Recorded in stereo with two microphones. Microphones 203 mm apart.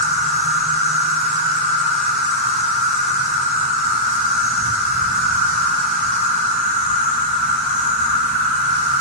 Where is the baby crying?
No baby crying in this recording.